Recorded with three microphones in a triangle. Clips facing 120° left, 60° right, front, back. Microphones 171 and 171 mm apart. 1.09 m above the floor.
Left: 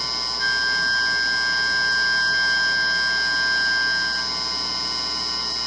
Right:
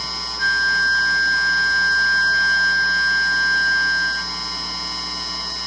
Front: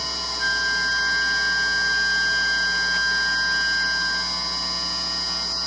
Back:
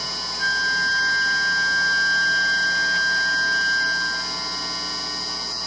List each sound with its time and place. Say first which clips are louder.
0.4 s a flute: right 5 dB, back 2 dB; 90° right, 0.5 m